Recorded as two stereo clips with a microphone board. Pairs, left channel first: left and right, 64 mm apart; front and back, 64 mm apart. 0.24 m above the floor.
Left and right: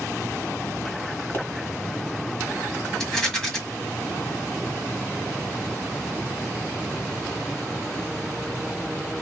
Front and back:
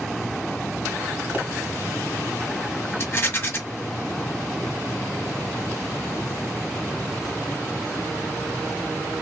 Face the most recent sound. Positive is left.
turn(degrees=15)